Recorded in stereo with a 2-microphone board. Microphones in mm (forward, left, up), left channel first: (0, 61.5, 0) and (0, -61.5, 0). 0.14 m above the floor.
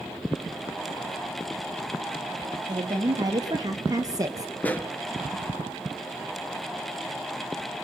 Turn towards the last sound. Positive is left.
turn(degrees=15)  # may be behind; listen again after turning